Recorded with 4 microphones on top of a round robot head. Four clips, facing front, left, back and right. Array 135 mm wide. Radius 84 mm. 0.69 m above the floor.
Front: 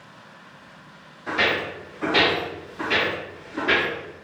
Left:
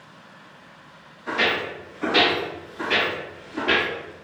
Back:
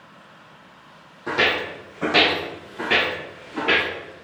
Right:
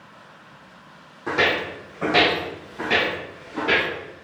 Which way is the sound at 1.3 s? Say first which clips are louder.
Right 2 dB, back 1 dB; 125° right.